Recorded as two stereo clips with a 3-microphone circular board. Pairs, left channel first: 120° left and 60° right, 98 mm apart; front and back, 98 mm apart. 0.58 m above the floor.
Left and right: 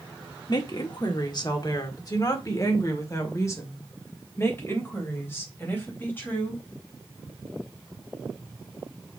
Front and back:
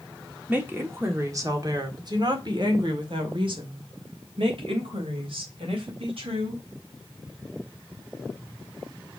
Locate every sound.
0.5 s a woman speaking: 115° left, 1.6 m; by 6.6 s 170° right, 4 m